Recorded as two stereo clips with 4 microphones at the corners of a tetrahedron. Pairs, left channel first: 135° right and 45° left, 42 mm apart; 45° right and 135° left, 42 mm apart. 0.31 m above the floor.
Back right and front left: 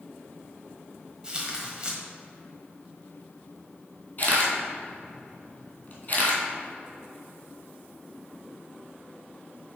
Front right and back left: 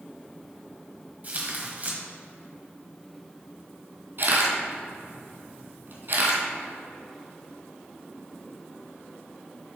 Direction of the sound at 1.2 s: 105° left.